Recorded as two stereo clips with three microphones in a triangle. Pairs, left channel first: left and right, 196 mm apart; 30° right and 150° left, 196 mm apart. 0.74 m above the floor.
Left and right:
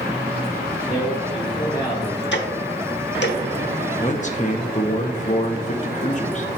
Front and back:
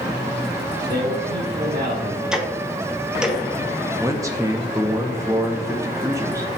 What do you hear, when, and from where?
0.9 s a man speaking: 155° left, 1.1 m
2.3 s ticking: 65° left, 1.0 m
4.0 s a man speaking: 85° left, 0.7 m